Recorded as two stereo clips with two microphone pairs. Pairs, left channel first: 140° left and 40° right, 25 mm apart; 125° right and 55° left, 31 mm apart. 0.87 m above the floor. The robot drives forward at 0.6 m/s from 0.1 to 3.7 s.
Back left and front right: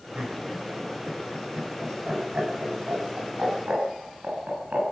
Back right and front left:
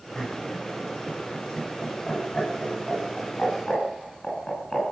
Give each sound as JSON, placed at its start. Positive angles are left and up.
{"t": 0.1, "sound": "laughter", "azimuth_deg": -55, "distance_m": 8.5}